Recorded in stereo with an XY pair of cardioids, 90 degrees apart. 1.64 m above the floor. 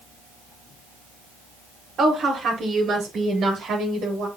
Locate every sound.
2.0 s a woman speaking: 55° right, 4 m; by 4.3 s 75° right, 3 m